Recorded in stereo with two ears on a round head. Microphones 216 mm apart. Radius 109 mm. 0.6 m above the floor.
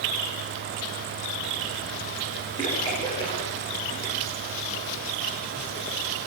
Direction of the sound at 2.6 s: 15° left (ahead or behind).